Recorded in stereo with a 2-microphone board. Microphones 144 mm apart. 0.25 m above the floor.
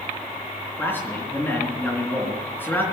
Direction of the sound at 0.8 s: 15° left (ahead or behind).